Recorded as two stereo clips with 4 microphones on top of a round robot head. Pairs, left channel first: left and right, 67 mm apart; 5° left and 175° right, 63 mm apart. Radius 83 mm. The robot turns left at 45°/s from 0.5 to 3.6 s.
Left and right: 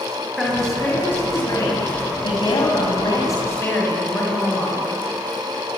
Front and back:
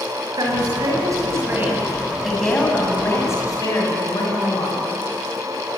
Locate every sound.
0.4 s a woman speaking: 175° left, 5.5 m; by 4.9 s 35° left, 5.5 m